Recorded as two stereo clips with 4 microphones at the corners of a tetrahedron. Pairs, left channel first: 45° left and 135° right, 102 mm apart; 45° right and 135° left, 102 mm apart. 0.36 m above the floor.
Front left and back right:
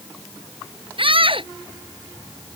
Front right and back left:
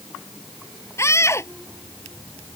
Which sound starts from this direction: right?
A scream, at 1.0 s.